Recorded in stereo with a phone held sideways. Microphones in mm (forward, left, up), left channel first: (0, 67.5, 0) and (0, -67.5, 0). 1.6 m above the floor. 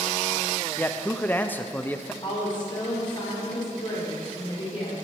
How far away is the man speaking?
About 0.5 m.